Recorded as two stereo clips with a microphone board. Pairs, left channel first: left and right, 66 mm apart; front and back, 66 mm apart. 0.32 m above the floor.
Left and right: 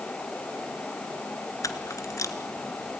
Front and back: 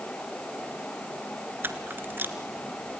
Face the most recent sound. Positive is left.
turn(degrees=125)